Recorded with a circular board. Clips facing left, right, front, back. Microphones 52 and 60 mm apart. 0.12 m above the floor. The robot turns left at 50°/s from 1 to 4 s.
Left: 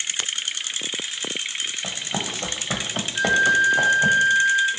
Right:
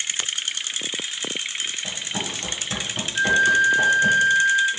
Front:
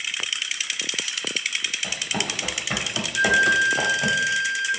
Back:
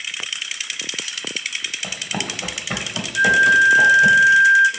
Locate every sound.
1.8 s running footsteps: 115° left, 1.1 m; by 4.2 s 65° left, 1.3 m
3.1 s a flute: 115° right, 0.6 m; by 4.7 s 160° right, 0.6 m